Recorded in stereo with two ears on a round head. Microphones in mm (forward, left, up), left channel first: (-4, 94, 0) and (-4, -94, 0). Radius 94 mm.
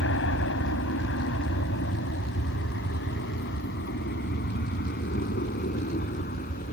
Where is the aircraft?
60° left (ahead or behind); by 6.7 s 40° left (ahead or behind).